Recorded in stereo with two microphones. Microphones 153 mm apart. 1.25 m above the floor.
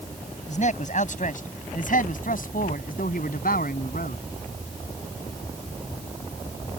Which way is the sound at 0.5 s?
50° left (ahead or behind).